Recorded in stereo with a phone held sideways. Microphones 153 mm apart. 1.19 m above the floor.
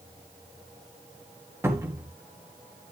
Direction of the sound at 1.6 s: 15° right (ahead or behind).